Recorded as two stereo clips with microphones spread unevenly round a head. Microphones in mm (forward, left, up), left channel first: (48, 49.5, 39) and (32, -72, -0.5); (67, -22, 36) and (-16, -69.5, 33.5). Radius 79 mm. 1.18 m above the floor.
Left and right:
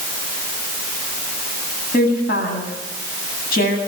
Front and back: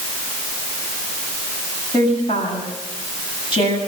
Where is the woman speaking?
85° left, 9 m.